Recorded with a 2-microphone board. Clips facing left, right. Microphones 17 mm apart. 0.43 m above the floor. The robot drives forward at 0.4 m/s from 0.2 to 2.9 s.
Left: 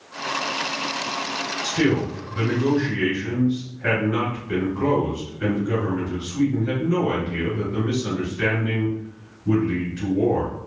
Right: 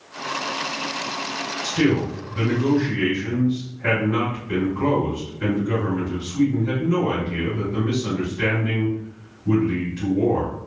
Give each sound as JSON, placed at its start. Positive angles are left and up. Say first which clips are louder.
{"t": 1.6, "sound": "a man speaking", "louder": "right 1 dB", "side_deg": 5, "distance_m": 1.5}